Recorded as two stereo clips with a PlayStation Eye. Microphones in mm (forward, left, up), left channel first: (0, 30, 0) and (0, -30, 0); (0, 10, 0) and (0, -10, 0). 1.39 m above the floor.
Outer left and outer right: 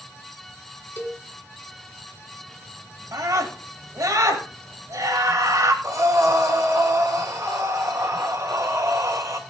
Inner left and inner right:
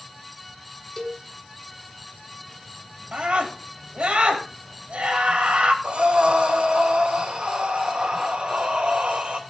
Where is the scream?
65° right (ahead or behind), 3.5 m.